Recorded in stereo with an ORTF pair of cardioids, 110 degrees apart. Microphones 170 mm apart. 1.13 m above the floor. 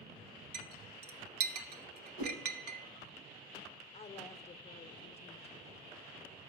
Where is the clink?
65° right, 0.9 m.